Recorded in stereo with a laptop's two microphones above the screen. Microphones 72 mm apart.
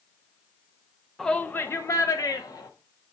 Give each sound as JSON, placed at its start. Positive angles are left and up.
{"t": 1.2, "sound": "a shout", "side_deg": 5, "distance_m": 0.6}